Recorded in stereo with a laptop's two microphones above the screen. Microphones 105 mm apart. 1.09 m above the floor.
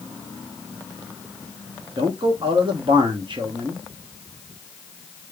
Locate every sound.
2.0 s a man speaking: 50° right (ahead or behind), 0.9 m